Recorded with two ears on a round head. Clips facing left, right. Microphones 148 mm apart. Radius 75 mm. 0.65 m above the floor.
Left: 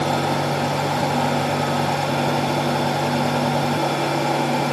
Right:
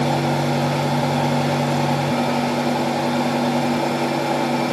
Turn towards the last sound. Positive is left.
No sound to turn to.